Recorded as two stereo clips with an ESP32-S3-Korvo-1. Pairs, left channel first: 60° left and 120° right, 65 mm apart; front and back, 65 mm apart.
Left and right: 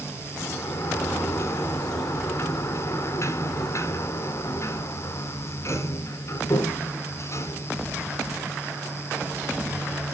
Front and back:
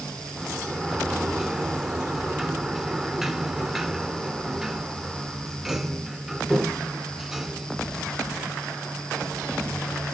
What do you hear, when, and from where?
0.4 s a sliding door: 95° left, 1.6 m